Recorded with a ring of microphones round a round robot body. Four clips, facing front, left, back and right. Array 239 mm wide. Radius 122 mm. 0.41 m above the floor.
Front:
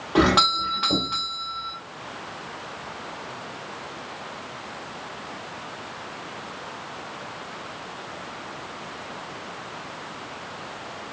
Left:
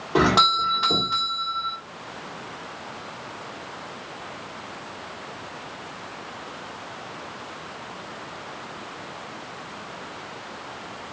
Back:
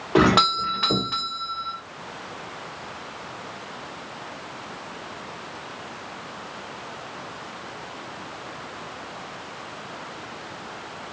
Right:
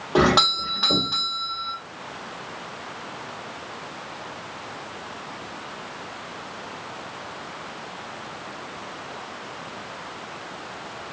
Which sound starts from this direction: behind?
A doorbell, at 0.1 s.